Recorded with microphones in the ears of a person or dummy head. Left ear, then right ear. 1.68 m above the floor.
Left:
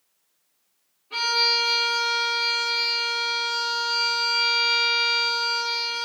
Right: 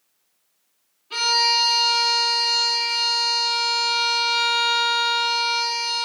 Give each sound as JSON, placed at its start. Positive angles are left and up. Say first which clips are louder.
{"t": 1.1, "sound": "a violin", "louder": "right 3 dB", "side_deg": -45, "distance_m": 2.5}